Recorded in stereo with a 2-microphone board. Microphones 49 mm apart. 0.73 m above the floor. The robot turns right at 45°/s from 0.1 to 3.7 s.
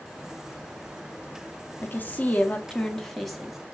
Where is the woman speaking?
110° left, 0.7 m; by 3.6 s 170° right, 0.7 m.